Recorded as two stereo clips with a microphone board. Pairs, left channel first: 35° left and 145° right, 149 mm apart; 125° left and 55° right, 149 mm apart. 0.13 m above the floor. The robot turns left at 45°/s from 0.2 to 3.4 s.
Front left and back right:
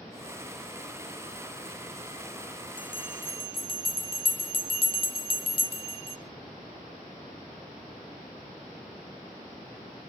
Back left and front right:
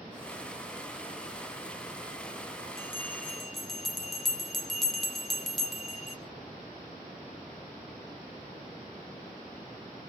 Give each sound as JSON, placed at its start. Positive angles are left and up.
{"t": 2.8, "sound": "a bell", "azimuth_deg": 65, "distance_m": 1.1}